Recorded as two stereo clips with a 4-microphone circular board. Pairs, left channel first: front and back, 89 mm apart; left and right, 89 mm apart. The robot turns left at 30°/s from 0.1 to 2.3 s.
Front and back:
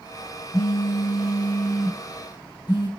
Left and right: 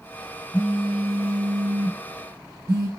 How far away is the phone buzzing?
About 2 m.